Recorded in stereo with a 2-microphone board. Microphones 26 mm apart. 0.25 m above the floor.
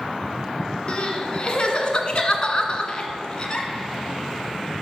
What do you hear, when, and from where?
0.9 s crying: 40° left (ahead or behind), 1.5 m